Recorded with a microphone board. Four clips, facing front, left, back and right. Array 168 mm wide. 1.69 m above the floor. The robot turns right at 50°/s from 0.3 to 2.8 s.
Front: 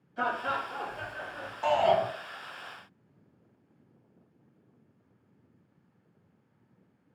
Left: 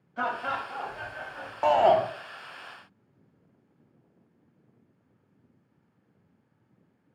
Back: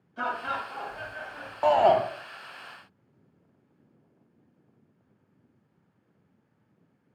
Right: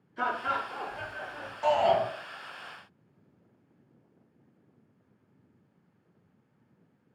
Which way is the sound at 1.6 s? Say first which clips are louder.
Left 4 dB, back 4 dB; 135° left.